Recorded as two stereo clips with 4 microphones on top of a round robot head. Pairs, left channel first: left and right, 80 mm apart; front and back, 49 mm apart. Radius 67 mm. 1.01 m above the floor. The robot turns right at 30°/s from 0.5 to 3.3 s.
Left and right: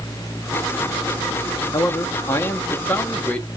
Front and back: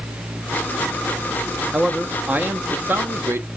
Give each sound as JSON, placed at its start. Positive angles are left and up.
{"t": 1.7, "sound": "a man speaking", "azimuth_deg": 115, "distance_m": 0.9}